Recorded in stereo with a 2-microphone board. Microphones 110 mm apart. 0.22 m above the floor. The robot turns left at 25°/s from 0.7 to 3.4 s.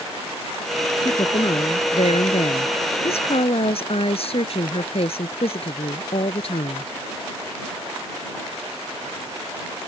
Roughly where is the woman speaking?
Behind left.